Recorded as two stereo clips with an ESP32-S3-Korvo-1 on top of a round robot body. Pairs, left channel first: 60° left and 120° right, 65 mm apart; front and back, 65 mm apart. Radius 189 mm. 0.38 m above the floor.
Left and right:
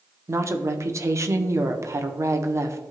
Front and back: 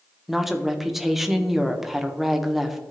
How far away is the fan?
I don't hear a fan.